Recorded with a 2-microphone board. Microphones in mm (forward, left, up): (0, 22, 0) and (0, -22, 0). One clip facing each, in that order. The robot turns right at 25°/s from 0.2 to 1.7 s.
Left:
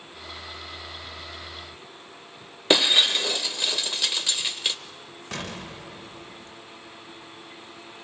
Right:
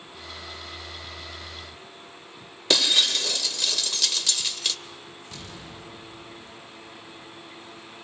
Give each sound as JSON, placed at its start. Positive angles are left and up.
{"t": 2.7, "sound": "breaking glass", "side_deg": 20, "distance_m": 0.6}
{"t": 5.3, "sound": "an explosion", "side_deg": 70, "distance_m": 1.2}